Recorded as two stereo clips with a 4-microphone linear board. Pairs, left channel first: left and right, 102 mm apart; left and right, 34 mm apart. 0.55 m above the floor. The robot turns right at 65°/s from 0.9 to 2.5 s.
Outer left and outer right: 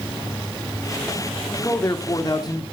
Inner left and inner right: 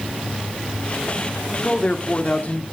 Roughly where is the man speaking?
Ahead left.